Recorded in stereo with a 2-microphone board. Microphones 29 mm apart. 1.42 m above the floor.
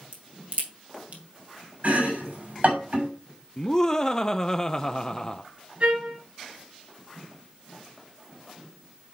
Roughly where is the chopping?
Right.